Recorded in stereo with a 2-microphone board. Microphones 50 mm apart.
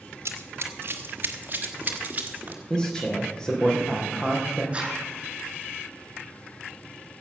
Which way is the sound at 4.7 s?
20° right (ahead or behind).